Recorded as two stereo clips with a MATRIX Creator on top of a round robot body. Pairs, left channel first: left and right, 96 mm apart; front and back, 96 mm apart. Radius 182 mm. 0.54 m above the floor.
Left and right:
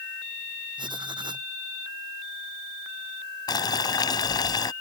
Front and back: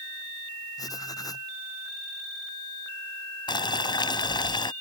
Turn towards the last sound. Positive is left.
turn(degrees=45)